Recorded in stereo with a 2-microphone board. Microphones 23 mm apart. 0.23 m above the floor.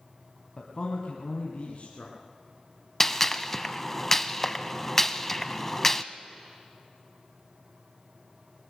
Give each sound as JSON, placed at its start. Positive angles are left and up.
{"t": 0.6, "sound": "a man speaking", "side_deg": 35, "distance_m": 1.6}
{"t": 3.0, "sound": "a gunshot", "side_deg": 15, "distance_m": 0.6}